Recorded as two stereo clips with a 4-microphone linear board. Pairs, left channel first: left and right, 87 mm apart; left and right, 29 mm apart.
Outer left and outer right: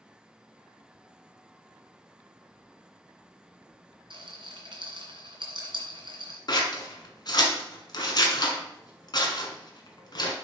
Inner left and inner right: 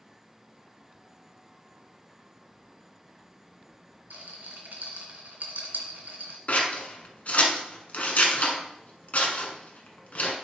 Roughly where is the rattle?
Right.